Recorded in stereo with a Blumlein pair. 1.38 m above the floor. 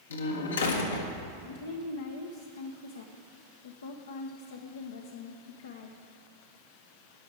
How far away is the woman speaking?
About 0.9 m.